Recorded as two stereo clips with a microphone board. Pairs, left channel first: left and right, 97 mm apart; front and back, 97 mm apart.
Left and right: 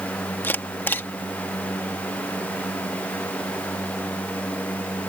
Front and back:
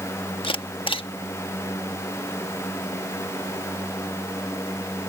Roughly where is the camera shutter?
Ahead.